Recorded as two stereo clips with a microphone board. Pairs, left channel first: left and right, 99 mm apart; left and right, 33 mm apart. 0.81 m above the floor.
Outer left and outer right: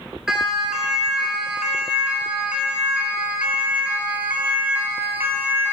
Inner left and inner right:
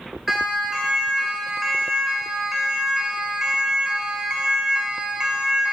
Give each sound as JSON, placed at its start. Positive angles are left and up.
{"t": 0.3, "sound": "a siren", "side_deg": -5, "distance_m": 9.5}